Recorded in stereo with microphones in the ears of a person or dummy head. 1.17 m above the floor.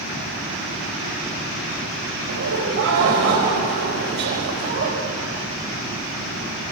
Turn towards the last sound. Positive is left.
turn(degrees=-50)  # may be behind; listen again after turning